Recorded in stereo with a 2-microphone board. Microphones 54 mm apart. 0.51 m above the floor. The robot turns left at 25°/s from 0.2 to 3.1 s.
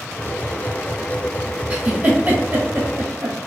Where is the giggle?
20° right (ahead or behind), 1.6 m; by 3.5 s 55° right (ahead or behind), 1.6 m.